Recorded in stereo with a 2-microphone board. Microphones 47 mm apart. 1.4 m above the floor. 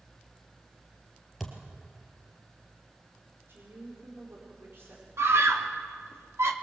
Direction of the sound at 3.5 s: 60° right (ahead or behind).